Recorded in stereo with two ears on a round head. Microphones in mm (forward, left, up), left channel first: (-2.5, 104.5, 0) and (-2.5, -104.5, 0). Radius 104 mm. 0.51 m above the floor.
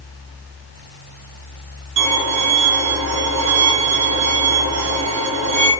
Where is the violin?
85° right, 2 m.